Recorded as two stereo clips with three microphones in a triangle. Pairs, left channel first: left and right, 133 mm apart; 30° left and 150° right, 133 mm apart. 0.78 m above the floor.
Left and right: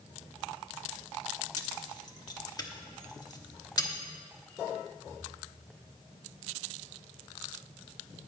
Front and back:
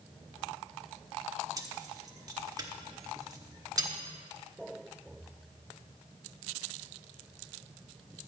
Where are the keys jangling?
150° left, 1.0 m.